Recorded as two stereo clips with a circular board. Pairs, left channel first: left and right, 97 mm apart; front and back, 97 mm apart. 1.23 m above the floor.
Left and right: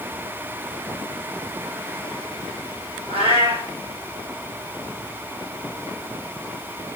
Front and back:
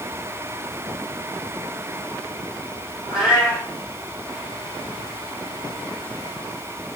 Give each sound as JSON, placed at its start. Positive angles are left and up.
{"t": 3.1, "sound": "a cat meowing", "azimuth_deg": -95, "distance_m": 6.0}